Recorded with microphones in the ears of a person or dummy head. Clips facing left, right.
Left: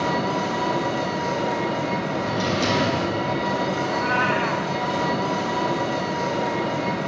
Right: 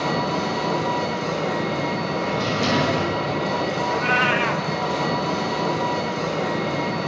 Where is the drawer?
70° left (ahead or behind), 6.5 m.